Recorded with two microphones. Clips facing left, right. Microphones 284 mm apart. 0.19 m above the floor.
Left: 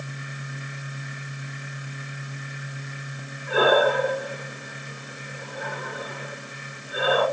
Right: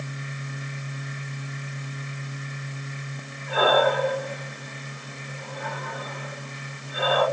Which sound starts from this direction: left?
Breathing, at 3.5 s.